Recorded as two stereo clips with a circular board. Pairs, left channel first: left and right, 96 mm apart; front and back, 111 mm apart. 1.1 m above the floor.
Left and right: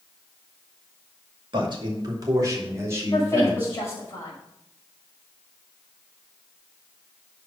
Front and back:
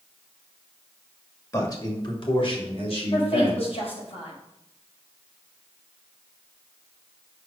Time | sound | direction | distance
1.5 | a man speaking | 60° right | 2 m
3.1 | a woman speaking | 30° left | 5 m